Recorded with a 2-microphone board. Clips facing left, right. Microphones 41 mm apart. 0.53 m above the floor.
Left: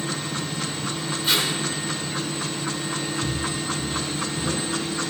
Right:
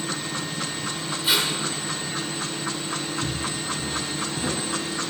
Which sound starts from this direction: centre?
Tape being pulled, at 1.2 s.